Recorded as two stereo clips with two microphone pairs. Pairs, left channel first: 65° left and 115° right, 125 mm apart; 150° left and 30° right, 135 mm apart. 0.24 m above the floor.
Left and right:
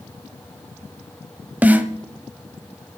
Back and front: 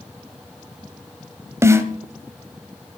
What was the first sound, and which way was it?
A snare drum, 60° right.